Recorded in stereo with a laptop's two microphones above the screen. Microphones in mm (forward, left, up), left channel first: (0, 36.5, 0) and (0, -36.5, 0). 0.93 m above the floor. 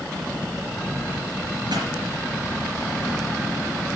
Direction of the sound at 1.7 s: 80° right.